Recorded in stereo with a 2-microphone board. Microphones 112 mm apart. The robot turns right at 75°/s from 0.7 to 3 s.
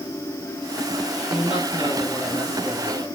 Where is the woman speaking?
110° left, 4.5 m; by 3.1 s 120° right, 4.5 m.